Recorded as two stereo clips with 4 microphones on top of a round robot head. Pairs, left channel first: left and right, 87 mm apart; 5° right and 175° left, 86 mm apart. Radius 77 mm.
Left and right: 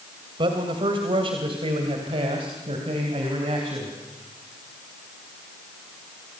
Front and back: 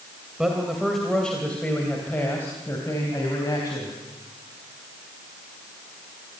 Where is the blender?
I don't hear a blender.